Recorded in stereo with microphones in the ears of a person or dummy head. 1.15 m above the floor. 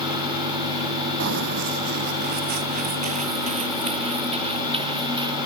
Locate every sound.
1.2 s running footsteps: 60° right (ahead or behind); by 5.4 s 30° right (ahead or behind)